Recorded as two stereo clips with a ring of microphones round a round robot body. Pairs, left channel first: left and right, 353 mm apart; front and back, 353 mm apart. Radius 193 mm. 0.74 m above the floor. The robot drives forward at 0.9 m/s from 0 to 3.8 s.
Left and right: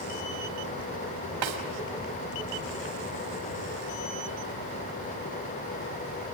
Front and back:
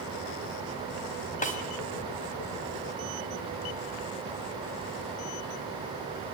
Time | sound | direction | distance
1.4 | a snare drum | 70° right | 3 m